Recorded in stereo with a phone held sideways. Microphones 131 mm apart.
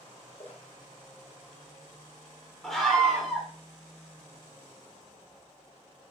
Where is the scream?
5° left (ahead or behind), 2.5 m.